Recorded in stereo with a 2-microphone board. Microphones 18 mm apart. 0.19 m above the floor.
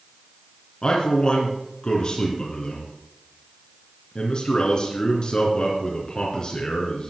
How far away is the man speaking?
About 3 m.